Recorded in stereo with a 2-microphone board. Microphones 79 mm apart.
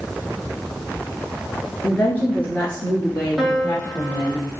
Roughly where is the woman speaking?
Left.